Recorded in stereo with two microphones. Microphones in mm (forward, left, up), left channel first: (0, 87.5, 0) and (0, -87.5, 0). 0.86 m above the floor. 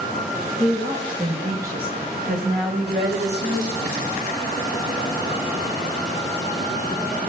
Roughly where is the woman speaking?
Right.